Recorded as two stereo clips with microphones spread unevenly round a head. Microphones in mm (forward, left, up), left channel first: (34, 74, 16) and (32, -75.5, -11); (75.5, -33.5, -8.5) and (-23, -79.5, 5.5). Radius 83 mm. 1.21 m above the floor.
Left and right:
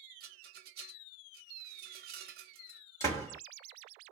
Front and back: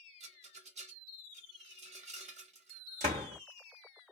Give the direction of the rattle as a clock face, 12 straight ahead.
4 o'clock.